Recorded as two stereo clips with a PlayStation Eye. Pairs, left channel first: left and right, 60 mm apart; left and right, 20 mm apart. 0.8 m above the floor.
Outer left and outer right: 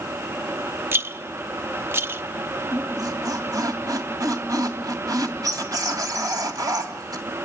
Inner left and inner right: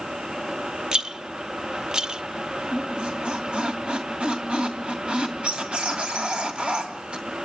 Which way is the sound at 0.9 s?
40° right (ahead or behind).